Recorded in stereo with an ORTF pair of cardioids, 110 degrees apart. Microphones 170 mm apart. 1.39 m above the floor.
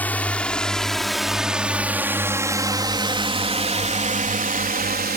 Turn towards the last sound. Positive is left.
turn(degrees=-70)